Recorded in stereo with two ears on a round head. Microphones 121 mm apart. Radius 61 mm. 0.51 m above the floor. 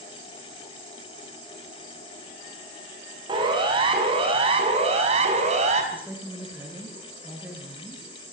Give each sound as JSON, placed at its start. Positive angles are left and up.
{"t": 3.3, "sound": "a siren", "side_deg": -35, "distance_m": 6.0}
{"t": 5.9, "sound": "a woman speaking", "side_deg": -10, "distance_m": 6.5}